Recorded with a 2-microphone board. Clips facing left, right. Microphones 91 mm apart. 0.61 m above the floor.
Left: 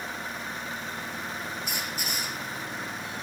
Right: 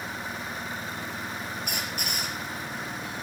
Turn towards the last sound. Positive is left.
turn(degrees=-55)  # may be behind; listen again after turning